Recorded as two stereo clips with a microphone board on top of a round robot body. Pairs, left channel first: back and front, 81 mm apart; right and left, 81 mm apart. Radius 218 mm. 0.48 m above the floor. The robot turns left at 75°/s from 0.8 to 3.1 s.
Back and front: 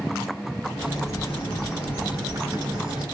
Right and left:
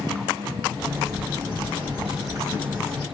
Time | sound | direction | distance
0.9 | a bird | 155° left | 2.0 m